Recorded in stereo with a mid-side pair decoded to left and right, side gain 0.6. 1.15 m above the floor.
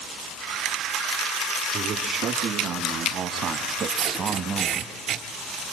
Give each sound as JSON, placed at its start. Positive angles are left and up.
{"t": 1.7, "sound": "a man speaking", "azimuth_deg": -60, "distance_m": 2.5}
{"t": 3.9, "sound": "tape being pulled", "azimuth_deg": -55, "distance_m": 3.0}